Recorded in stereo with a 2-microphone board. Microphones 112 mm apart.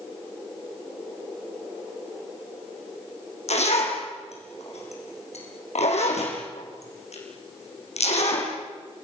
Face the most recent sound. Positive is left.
turn(degrees=75)  # may be behind; listen again after turning